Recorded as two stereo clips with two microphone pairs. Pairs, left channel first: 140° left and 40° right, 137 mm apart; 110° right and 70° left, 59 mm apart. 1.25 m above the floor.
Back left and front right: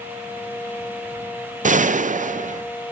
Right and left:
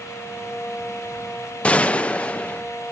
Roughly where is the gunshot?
Ahead right.